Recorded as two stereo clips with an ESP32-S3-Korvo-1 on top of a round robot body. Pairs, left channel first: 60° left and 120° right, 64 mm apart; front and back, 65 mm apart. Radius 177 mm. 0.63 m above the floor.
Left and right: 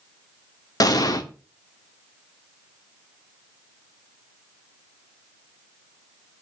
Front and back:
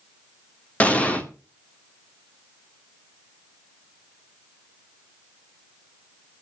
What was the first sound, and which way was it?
An explosion, 70° left.